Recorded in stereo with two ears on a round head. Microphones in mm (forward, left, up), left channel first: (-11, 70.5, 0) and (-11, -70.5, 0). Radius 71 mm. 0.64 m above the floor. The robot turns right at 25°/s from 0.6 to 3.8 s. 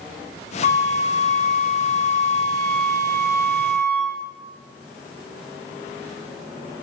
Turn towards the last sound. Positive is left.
turn(degrees=170)